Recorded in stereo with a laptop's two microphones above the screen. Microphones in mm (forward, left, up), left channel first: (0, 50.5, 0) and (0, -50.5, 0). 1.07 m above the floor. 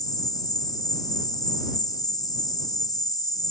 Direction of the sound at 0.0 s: 35° left (ahead or behind).